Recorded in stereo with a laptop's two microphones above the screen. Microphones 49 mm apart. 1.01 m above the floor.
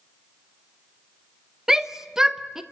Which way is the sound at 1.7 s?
10° right (ahead or behind).